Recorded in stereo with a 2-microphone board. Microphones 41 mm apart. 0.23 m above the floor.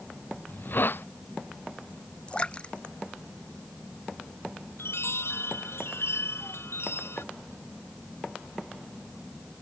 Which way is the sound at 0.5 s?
55° left (ahead or behind).